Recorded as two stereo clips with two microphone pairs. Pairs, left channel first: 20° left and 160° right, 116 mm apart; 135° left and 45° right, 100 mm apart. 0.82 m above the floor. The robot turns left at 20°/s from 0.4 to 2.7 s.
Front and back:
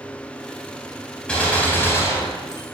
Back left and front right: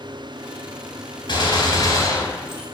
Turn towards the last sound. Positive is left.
turn(degrees=70)